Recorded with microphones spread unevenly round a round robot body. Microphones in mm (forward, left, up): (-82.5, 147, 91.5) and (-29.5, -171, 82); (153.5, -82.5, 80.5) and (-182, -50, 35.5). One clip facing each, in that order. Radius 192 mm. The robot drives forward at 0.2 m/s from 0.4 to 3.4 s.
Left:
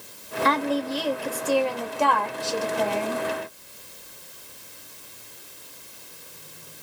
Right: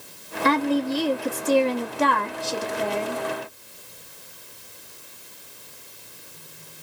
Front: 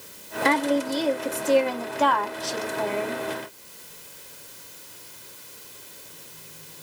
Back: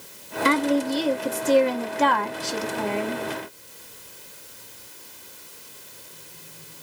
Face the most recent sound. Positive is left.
turn(degrees=-150)